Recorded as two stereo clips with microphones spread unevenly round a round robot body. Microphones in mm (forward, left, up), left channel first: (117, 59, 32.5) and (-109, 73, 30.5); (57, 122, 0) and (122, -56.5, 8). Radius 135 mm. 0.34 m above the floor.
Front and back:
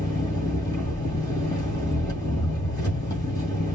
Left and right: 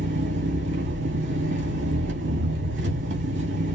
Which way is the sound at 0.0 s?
75° right.